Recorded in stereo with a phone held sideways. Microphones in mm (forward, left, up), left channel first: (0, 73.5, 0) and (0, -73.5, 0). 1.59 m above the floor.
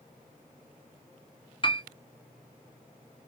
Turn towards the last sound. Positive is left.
turn(degrees=35)  # may be behind; listen again after turning